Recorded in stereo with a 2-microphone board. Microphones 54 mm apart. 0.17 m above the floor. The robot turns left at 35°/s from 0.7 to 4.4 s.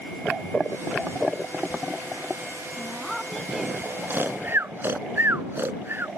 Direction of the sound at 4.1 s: 45° right (ahead or behind).